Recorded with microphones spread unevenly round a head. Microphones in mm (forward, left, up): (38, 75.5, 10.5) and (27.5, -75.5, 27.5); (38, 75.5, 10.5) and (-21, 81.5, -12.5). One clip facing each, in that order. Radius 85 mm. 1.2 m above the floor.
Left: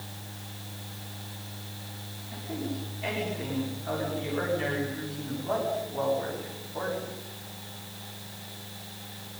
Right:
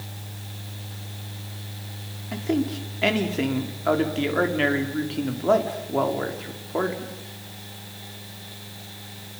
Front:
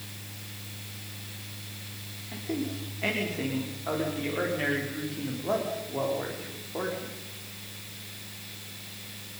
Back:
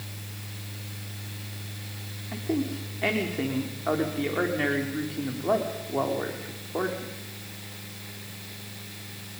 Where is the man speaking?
120° right, 3.5 m.